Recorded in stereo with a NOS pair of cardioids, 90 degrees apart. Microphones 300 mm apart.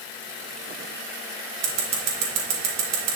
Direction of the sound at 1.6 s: 60° right.